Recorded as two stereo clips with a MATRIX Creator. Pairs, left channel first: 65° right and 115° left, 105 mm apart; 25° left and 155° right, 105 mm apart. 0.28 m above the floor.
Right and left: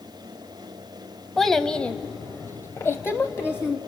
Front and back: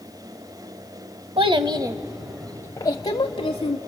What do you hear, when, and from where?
1.4 s a child speaking: 155° right, 1.0 m; by 3.8 s straight ahead, 1.4 m